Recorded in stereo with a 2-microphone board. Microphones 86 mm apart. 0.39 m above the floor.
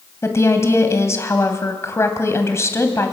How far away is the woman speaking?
About 2.5 m.